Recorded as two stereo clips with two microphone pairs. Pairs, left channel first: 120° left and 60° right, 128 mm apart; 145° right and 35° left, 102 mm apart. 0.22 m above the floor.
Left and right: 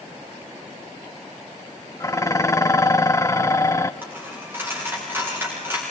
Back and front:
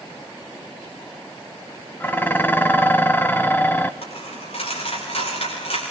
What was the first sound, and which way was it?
Dishes clattering, 160° left.